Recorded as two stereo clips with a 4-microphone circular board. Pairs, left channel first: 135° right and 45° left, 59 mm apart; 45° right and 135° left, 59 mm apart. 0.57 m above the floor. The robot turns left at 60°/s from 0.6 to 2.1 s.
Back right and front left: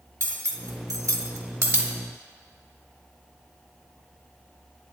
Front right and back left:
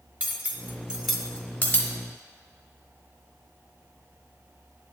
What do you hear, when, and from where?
0.2 s cutlery clinking: 75° left, 0.9 m; by 1.9 s 5° right, 0.9 m